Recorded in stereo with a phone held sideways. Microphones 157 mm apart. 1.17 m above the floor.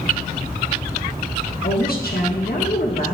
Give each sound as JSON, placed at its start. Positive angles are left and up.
{"t": 1.6, "sound": "a woman speaking", "side_deg": 75, "distance_m": 1.4}